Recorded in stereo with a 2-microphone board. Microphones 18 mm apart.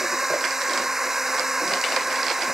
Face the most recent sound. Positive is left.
turn(degrees=-20)  # may be behind; listen again after turning